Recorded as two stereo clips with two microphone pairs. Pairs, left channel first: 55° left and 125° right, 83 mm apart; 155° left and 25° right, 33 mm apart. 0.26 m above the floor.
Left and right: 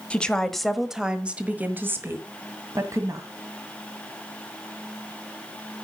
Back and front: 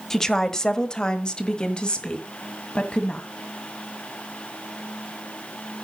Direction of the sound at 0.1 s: 110° left.